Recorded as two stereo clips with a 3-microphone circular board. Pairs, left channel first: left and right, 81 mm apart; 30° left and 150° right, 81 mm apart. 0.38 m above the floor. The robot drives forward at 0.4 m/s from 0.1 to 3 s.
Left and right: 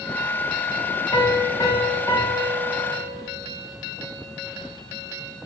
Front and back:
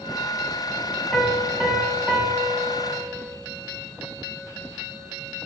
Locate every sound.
1.1 s a piano: 110° left, 0.6 m; by 3.3 s 150° left, 1.1 m